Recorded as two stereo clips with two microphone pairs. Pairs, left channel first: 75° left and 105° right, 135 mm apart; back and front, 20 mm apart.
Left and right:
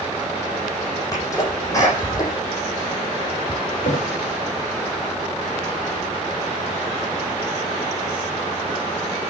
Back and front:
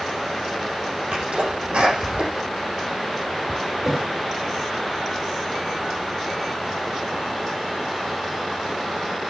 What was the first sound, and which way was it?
A sneeze, 10° left.